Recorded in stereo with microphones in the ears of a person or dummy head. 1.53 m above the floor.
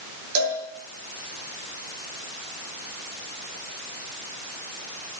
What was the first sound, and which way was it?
A cowbell, 80° right.